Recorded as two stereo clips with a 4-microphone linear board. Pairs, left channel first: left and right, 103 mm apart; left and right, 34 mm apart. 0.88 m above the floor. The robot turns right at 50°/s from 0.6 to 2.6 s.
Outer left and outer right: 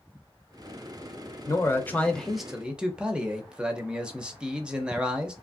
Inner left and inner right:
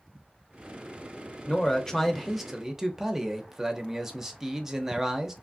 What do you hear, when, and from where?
1.5 s a man speaking: 135° left, 0.6 m; by 5.3 s 165° right, 0.6 m